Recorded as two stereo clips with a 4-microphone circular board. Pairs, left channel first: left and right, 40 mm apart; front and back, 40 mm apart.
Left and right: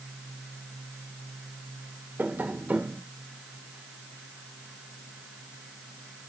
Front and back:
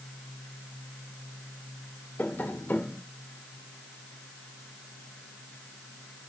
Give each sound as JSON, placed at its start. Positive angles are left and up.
{"t": 2.2, "sound": "tapping", "azimuth_deg": -45, "distance_m": 2.0}